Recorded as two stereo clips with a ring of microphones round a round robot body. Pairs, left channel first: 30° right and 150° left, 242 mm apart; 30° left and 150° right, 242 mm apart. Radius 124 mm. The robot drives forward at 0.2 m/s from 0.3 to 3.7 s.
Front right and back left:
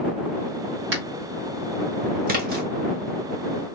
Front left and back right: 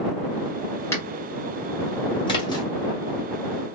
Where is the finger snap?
110° left, 1.7 m.